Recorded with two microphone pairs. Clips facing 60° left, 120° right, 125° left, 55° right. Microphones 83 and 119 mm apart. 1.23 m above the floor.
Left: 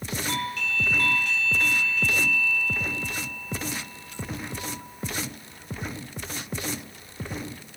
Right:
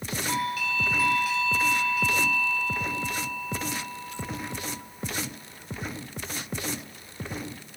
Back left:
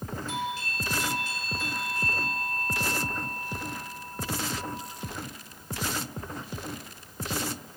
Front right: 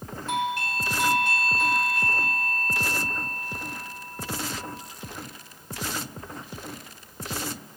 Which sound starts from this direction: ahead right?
A doorbell, at 0.3 s.